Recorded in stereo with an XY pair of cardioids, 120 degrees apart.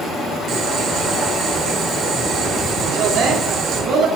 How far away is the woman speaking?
About 3 m.